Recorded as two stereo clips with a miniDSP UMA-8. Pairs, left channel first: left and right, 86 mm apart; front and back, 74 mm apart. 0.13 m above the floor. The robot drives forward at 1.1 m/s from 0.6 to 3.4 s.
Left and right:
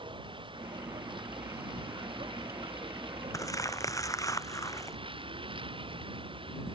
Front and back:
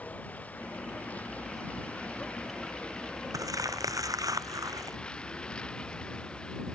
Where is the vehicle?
70° right; by 6.8 s 75° right.